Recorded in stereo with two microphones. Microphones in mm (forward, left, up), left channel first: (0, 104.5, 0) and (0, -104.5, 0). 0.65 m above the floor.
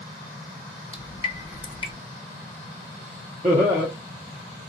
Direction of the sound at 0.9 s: 25° left (ahead or behind).